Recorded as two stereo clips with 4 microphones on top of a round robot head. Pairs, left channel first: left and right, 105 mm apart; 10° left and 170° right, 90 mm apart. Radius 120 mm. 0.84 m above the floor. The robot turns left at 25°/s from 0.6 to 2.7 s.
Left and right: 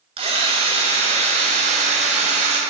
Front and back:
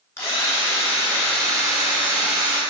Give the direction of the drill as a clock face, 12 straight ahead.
2 o'clock.